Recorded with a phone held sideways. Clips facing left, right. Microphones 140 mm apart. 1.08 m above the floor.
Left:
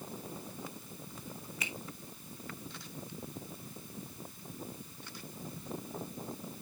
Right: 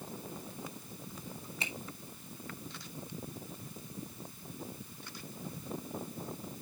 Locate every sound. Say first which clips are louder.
1.6 s a finger snap: right 1 dB; 30° right (ahead or behind), 1.8 m